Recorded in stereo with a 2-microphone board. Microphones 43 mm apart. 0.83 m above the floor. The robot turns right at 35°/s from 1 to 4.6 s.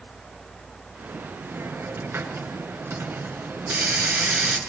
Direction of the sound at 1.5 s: 135° right.